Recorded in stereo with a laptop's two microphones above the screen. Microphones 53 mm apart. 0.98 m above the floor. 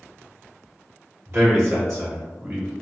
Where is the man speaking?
60° right (ahead or behind), 1.9 m; by 2.7 s 50° right (ahead or behind), 2.5 m.